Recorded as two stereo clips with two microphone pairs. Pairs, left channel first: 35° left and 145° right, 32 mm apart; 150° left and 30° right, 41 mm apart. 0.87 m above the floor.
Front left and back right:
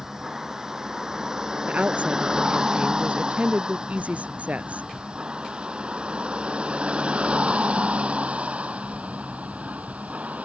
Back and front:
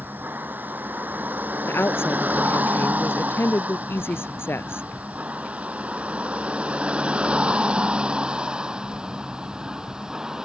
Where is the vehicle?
75° right; by 10.4 s 105° right.